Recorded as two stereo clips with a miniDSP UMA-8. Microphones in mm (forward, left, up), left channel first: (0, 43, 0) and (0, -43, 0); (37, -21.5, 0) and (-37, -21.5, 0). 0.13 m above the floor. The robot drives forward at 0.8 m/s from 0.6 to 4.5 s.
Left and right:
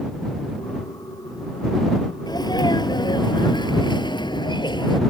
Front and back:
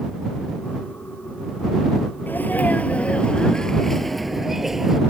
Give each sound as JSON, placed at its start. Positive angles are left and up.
{"t": 2.3, "sound": "a sneeze", "azimuth_deg": 60}